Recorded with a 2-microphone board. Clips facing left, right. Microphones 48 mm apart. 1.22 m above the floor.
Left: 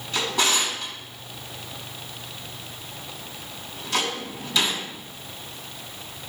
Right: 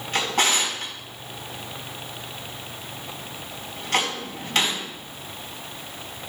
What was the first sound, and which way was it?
A drawer, 60° right (ahead or behind).